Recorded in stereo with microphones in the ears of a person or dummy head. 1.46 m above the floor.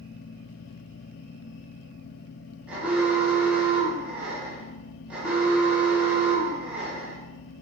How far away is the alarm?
About 2.5 m.